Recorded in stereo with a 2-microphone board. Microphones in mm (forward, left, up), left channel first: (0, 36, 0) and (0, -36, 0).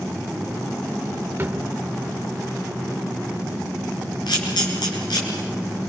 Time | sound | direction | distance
1.4 | a drawer | 30° right (ahead or behind) | 1.2 m
4.3 | a camera shutter | 80° left | 5.5 m